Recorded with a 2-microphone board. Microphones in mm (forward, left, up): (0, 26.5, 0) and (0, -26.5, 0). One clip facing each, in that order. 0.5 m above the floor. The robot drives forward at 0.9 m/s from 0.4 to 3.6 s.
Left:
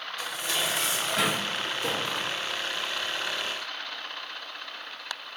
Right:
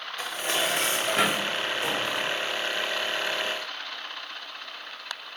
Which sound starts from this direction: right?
Dishes clattering, at 0.2 s.